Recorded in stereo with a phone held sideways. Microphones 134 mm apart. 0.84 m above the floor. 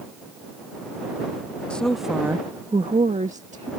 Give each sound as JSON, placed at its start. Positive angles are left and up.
{"t": 1.7, "sound": "a woman speaking", "side_deg": 10}